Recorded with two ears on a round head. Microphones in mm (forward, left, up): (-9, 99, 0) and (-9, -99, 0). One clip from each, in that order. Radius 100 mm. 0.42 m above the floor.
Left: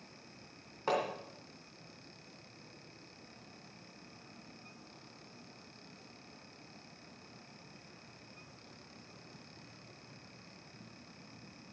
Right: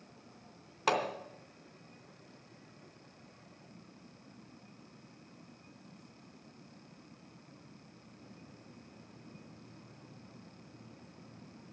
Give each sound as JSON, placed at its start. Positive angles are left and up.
{"t": 0.9, "sound": "hammering", "side_deg": -75, "distance_m": 3.0}